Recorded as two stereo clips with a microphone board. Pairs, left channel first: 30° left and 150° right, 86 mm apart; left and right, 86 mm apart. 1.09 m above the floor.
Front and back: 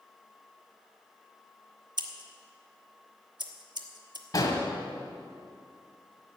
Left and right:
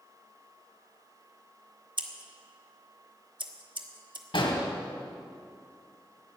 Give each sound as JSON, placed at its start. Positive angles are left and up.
{"t": 2.0, "sound": "scissors", "azimuth_deg": -115, "distance_m": 1.1}
{"t": 4.3, "sound": "an explosion", "azimuth_deg": 75, "distance_m": 2.0}